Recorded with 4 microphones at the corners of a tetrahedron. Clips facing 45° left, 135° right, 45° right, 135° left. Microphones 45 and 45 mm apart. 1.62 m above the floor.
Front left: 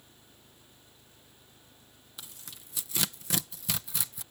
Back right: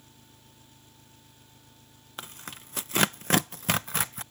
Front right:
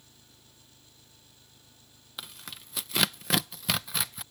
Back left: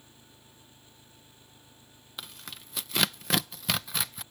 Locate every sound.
0.0 s an engine running: 160° right
2.2 s tearing paper: 135° right